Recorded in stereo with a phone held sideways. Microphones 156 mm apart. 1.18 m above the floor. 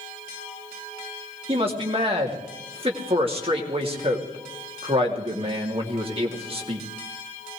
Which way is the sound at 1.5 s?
40° right (ahead or behind).